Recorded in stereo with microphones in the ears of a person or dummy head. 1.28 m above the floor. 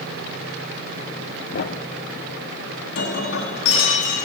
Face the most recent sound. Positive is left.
turn(degrees=85)